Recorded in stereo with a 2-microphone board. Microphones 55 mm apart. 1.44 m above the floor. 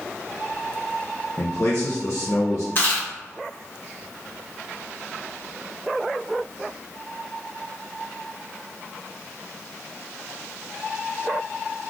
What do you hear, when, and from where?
1.4 s a man speaking: 50° left (ahead or behind), 0.5 m
2.8 s chewing: 40° left (ahead or behind), 1.3 m